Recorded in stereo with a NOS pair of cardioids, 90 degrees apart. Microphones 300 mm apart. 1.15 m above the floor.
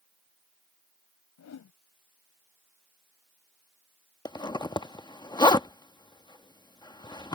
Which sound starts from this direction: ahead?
A zipper, at 4.2 s.